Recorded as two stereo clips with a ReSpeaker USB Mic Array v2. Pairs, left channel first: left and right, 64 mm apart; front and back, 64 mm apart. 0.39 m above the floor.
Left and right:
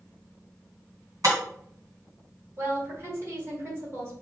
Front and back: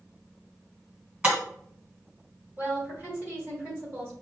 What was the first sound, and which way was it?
Breaking glass, 110° right.